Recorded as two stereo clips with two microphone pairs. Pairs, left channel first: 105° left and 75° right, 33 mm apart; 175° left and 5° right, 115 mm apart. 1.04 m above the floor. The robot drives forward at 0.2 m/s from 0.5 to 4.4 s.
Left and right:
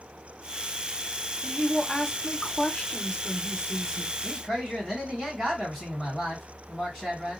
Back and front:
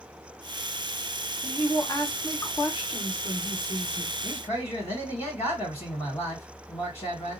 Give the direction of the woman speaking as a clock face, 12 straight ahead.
7 o'clock.